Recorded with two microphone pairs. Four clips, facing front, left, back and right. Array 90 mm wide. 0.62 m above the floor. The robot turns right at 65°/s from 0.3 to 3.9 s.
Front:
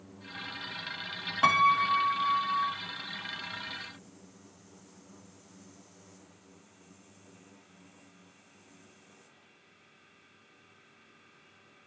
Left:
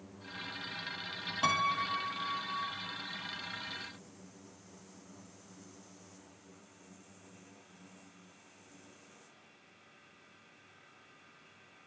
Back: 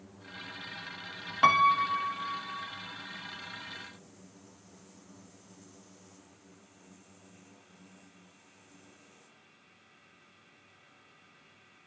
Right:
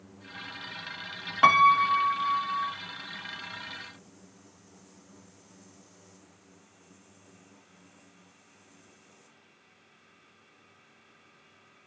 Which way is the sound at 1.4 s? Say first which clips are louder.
Right 12 dB, even; 105° right.